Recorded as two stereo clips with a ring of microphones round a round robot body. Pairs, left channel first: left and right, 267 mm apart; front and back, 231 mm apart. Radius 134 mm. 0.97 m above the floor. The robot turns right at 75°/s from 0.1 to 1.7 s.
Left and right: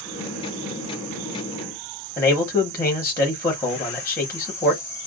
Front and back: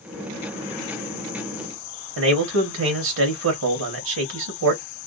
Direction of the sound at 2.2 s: 170° left.